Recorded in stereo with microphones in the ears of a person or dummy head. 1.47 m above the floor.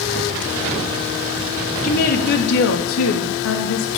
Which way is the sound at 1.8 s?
45° left (ahead or behind).